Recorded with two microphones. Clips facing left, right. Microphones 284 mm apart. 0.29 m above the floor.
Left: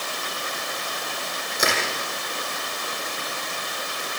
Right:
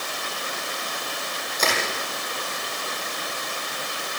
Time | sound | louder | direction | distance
1.6 | crushing | left 1 dB | 10° left (ahead or behind) | 8.5 m